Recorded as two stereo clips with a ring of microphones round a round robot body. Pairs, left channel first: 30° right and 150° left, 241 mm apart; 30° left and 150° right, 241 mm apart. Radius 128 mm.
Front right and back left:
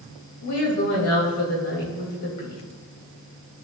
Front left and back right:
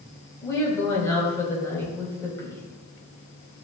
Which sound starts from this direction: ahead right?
A woman speaking, at 0.4 s.